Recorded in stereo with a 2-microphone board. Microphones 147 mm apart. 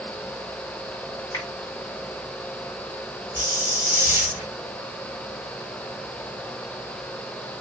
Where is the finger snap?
25° left (ahead or behind), 3 m.